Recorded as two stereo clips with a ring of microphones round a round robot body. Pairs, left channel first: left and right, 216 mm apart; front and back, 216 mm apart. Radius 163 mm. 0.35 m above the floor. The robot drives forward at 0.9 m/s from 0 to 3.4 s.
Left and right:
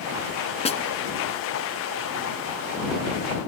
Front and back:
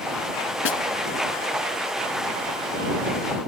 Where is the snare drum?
25° left; by 0.8 s 30° left.